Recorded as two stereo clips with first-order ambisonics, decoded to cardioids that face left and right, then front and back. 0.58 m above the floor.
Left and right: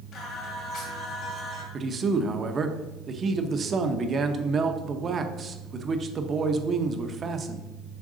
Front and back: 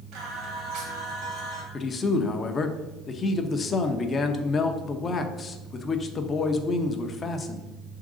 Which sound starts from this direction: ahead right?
A man speaking, at 1.7 s.